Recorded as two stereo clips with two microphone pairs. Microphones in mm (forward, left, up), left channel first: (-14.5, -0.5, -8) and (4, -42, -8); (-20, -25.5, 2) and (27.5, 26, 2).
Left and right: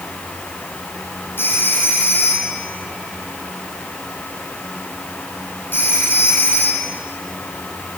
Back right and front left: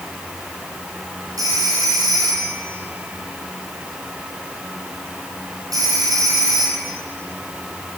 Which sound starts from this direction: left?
A phone ringing, at 1.4 s.